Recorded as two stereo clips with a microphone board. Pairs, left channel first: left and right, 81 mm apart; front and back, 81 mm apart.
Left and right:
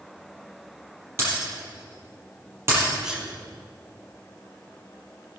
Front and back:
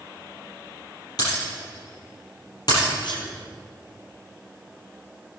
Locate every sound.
1.2 s breaking glass: 35° right, 5.5 m
3.0 s a sneeze: 10° right, 4 m